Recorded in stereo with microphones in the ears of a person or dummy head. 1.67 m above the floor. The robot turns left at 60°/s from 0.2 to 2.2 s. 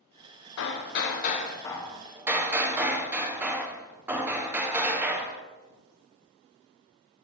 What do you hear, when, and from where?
0.6 s hammering: 85° left, 0.8 m; by 5.4 s 10° right, 0.8 m